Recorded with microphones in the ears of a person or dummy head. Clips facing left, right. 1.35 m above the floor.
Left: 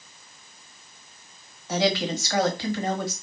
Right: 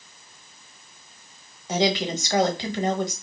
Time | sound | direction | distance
1.7 | a woman speaking | 20° right (ahead or behind) | 1.2 m